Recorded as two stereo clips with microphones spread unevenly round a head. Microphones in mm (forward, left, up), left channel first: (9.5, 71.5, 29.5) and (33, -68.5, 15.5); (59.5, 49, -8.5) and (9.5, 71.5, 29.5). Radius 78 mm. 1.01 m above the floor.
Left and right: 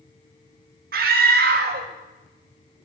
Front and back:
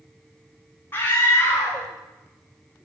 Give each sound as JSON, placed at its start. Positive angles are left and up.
{"t": 0.9, "sound": "a scream", "azimuth_deg": -85, "distance_m": 1.3}